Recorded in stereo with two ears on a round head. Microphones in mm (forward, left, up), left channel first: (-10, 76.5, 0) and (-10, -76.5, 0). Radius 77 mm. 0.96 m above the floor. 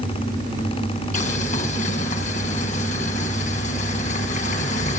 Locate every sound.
1.1 s boiling: 45° left (ahead or behind), 5 m